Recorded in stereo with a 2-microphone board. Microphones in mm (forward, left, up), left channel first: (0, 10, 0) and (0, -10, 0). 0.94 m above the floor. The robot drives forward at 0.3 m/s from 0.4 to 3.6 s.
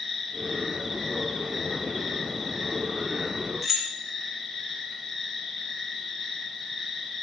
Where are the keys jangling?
Centre (ahead or behind), 0.5 m.